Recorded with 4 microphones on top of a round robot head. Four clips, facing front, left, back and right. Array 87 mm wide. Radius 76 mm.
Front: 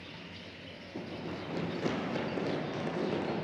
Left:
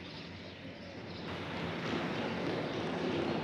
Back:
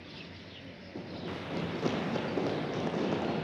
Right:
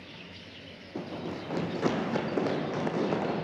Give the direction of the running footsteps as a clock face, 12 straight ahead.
3 o'clock.